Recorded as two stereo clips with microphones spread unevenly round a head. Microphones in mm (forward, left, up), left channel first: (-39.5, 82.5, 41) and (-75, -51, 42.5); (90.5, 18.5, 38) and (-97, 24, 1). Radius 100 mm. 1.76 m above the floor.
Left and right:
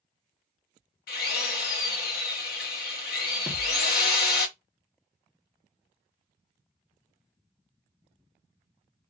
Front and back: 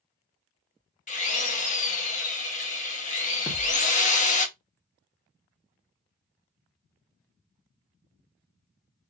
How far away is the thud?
About 1.3 m.